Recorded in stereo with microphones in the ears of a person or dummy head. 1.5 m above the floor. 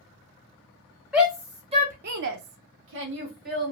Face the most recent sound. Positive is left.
turn(degrees=-50)  # may be behind; listen again after turning